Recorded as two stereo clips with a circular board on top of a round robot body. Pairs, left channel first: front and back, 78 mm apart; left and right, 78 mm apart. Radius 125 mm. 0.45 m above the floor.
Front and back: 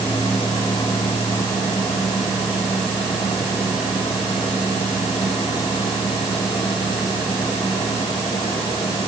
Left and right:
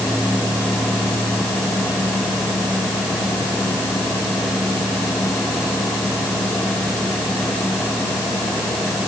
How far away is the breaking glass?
I don't hear breaking glass.